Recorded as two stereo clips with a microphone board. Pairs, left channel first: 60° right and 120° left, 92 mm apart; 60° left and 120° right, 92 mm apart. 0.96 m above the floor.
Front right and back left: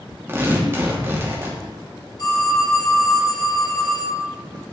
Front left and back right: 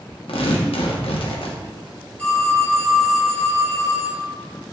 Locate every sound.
0.3 s tearing paper: 55° left, 1.1 m
2.2 s a phone ringing: 15° right, 1.8 m